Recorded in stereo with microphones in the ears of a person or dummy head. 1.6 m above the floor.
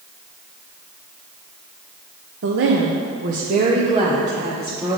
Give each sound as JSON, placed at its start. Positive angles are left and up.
{"t": 2.4, "sound": "a woman speaking", "side_deg": -60, "distance_m": 0.7}